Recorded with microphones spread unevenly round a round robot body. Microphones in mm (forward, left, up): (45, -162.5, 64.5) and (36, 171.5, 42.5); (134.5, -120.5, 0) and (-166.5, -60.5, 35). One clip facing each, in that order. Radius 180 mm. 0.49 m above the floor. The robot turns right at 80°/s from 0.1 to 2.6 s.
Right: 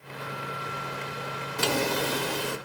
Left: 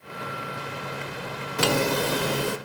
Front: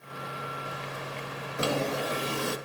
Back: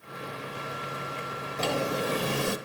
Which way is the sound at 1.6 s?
65° left.